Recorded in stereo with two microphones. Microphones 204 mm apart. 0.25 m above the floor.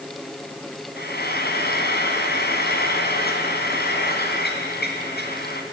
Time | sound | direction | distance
1.0 | frying | 50° left (ahead or behind) | 2.5 m